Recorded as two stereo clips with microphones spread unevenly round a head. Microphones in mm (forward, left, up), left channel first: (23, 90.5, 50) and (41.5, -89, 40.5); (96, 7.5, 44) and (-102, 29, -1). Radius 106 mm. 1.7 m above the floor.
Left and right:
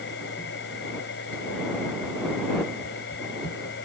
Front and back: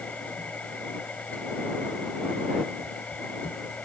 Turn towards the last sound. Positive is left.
turn(degrees=75)